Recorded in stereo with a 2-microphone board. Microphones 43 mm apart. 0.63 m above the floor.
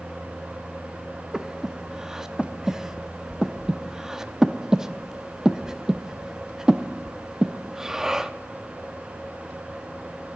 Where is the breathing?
10° right (ahead or behind), 0.6 m.